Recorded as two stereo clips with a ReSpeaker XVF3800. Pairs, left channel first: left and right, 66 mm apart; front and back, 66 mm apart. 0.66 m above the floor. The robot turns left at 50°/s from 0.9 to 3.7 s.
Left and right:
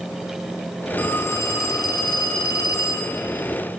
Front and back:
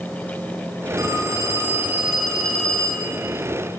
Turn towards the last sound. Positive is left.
turn(degrees=20)